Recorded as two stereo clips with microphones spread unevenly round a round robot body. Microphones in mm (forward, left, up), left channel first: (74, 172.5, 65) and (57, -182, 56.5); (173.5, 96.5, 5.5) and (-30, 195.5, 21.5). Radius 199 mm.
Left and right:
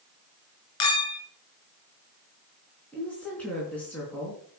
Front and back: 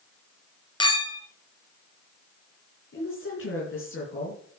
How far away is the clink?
About 3 m.